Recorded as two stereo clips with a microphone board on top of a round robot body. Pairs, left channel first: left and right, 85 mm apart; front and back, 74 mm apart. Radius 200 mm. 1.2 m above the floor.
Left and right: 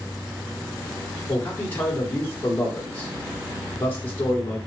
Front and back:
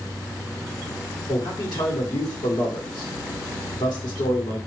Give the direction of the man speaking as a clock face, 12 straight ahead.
11 o'clock.